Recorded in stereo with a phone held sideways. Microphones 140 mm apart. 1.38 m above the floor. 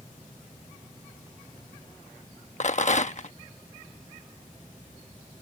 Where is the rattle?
55° left (ahead or behind).